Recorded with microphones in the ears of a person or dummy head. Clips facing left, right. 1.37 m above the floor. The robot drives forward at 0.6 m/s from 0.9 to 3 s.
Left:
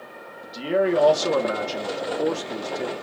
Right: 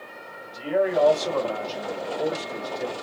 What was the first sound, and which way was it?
A man speaking, 50° left (ahead or behind).